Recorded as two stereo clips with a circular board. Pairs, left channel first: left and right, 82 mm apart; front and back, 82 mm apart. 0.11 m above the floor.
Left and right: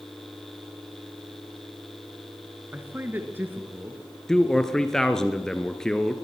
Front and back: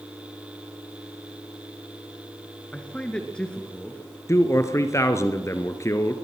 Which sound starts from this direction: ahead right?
A man speaking, at 2.7 s.